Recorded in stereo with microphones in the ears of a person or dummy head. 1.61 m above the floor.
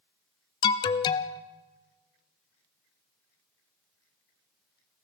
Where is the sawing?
No sawing in this recording.